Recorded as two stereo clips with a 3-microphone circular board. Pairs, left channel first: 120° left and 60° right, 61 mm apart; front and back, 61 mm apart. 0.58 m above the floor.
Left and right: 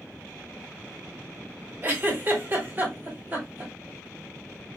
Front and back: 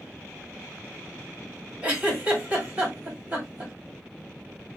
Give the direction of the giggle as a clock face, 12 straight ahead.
4 o'clock.